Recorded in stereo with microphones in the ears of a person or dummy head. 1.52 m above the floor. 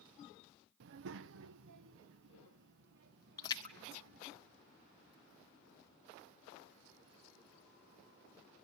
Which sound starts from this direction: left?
A splash, at 3.4 s.